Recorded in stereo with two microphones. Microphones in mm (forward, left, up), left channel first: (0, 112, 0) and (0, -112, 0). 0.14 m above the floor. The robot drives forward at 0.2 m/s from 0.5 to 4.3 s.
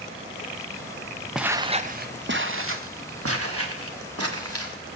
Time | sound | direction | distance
1.4 | footsteps | centre (ahead or behind) | 0.8 m